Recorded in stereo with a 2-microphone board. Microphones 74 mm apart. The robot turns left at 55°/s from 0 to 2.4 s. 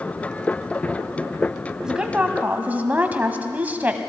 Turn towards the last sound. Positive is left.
turn(degrees=-50)